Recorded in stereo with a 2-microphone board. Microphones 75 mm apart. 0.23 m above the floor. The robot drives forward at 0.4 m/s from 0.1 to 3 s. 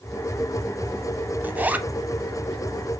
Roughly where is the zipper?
Right.